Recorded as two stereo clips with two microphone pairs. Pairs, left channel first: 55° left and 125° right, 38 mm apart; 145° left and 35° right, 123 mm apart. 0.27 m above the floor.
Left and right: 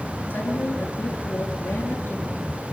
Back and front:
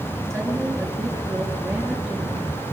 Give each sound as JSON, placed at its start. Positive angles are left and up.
{"t": 0.3, "sound": "a woman speaking", "azimuth_deg": 55, "distance_m": 5.0}